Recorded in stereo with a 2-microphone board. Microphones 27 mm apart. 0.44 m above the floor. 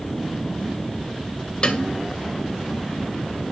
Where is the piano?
40° left (ahead or behind), 2 m.